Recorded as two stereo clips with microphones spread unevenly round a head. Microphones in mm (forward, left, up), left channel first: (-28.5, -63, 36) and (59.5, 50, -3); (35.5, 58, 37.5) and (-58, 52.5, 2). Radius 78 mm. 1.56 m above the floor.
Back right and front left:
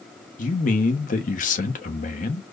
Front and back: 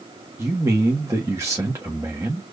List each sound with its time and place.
0.4 s a man speaking: 100° right, 1.2 m